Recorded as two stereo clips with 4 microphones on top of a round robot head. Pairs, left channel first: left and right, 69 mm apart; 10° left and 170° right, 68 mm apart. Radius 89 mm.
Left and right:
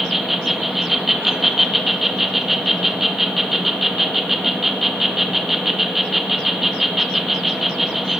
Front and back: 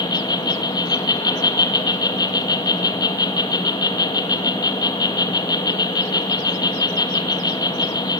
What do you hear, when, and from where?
0.0 s an insect: 5° right, 1.7 m